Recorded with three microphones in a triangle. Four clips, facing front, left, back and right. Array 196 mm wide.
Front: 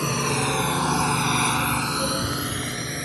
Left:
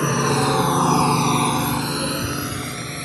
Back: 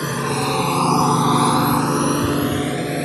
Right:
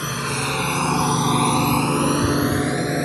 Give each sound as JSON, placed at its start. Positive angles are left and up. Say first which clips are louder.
{"t": 0.0, "sound": "a drone", "louder": "left 7 dB, back 3 dB", "azimuth_deg": 110}